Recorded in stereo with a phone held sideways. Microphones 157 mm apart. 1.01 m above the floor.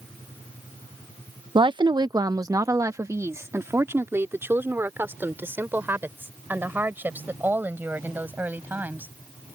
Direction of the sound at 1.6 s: 30° right (ahead or behind).